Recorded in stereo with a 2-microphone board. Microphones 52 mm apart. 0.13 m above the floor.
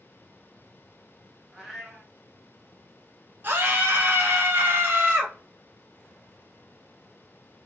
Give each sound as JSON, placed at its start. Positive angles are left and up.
{"t": 1.5, "sound": "a cat meowing", "side_deg": 5, "distance_m": 1.0}
{"t": 3.4, "sound": "a scream", "side_deg": -40, "distance_m": 1.5}